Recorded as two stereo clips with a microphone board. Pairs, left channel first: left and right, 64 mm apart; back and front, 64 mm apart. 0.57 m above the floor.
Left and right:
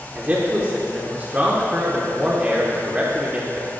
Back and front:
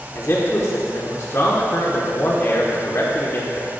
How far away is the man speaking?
About 1.2 m.